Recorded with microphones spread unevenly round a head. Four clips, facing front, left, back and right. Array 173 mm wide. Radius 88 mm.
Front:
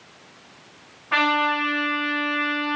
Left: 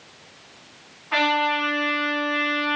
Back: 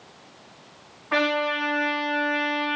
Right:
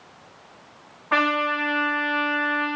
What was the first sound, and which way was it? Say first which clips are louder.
A trumpet: even, front 2 dB; 70° right.